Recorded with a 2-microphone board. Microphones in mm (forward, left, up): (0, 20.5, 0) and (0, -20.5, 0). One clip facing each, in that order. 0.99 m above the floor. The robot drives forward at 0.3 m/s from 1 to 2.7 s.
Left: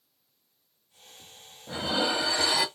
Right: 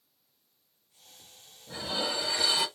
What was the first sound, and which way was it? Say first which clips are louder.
Dishes clattering: left 5 dB; 70° left (ahead or behind).